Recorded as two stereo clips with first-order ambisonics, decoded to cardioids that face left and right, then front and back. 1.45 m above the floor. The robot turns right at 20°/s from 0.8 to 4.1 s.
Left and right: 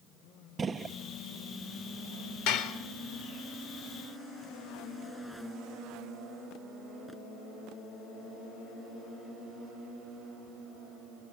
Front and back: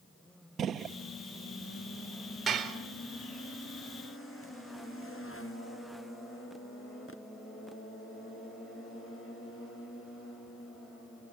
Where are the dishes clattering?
105° left, 3.5 m; by 2.8 s 110° left, 3.5 m.